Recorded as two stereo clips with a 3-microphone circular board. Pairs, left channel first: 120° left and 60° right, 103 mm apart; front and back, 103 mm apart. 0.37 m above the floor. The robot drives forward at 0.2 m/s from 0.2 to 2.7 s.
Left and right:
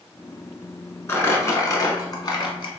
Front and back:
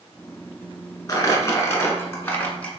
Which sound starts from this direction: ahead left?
Crumpling, at 1.1 s.